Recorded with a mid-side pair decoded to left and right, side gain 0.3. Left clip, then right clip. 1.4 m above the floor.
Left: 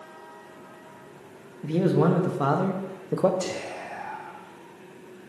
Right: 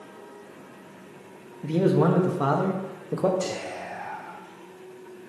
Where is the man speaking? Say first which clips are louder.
Right 1 dB; straight ahead, 1.7 m; by 3.3 s 35° left, 1.1 m.